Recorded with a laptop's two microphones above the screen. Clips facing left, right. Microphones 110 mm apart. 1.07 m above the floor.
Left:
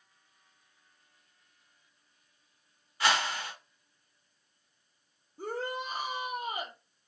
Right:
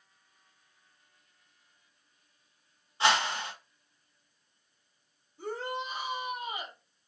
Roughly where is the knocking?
No knocking in this recording.